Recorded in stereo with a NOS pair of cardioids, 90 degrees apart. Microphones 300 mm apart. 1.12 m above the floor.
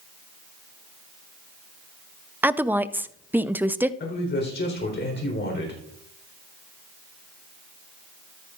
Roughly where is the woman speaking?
Ahead.